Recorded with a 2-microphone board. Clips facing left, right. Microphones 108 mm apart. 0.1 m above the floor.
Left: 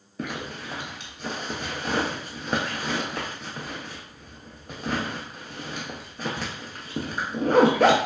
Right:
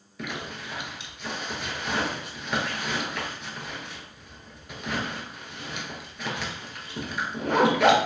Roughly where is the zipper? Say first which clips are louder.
Left 2 dB; left.